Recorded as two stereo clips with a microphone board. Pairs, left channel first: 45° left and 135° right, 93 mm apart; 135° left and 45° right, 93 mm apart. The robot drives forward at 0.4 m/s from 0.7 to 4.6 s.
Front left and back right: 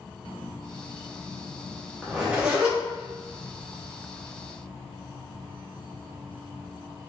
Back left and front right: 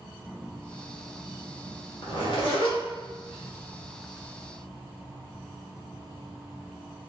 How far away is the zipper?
About 1.0 m.